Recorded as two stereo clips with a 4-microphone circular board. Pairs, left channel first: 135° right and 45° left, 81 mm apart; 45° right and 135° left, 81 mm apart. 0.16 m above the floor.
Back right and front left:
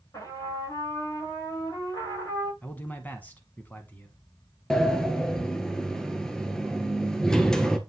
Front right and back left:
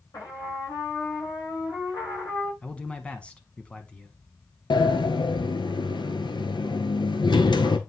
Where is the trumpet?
90° right, 7 m.